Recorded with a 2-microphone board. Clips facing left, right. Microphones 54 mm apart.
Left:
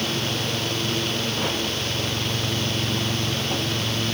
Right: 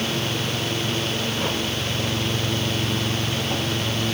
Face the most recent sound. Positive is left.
No sound to turn to.